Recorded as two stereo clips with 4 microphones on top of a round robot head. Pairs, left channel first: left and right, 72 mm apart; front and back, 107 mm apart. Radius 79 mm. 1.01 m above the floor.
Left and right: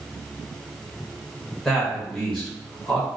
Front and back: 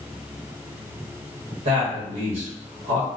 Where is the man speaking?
170° left, 1.4 m.